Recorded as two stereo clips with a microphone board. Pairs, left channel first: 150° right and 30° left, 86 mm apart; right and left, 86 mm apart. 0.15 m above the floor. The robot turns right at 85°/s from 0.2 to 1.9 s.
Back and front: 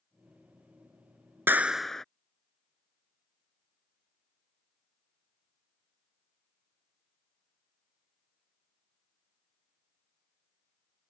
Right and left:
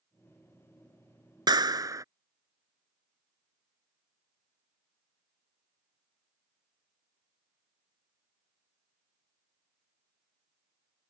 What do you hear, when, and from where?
1.5 s a clap: 90° left; by 2.0 s 125° left